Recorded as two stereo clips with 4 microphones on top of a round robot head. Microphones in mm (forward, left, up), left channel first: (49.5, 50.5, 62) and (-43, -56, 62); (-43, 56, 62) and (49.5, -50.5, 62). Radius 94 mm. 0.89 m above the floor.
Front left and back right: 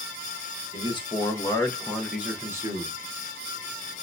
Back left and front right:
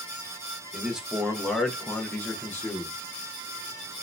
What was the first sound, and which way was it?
A man speaking, 30° left.